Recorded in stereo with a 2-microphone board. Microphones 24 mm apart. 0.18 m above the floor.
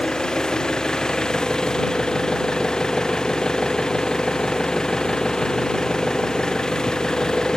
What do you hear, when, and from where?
0.0 s an engine running: 30° left (ahead or behind)